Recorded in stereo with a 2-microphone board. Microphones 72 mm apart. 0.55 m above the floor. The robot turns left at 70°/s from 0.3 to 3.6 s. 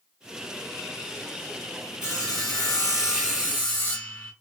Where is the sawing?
140° left, 2.5 m; by 4.3 s 30° left, 2.5 m.